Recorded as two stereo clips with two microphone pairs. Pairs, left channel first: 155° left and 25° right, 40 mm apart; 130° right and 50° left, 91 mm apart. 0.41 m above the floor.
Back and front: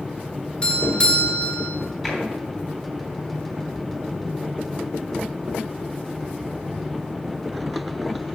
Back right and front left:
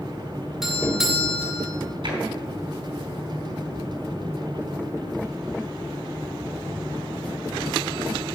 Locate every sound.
0.6 s a doorbell: 130° left, 2 m
2.0 s tapping: 60° left, 3 m